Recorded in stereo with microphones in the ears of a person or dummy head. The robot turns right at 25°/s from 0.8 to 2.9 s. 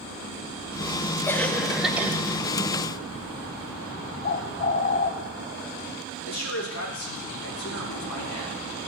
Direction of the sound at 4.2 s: 30° left (ahead or behind).